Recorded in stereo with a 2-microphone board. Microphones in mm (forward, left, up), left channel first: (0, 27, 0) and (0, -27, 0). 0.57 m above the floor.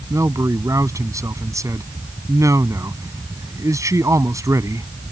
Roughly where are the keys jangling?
No keys jangling in this recording.